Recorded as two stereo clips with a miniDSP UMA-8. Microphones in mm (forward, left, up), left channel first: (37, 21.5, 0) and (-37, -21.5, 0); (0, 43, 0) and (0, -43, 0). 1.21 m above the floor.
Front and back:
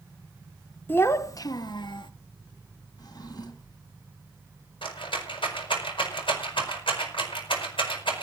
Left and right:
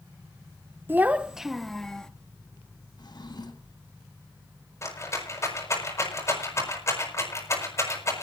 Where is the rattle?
35° left, 7 m.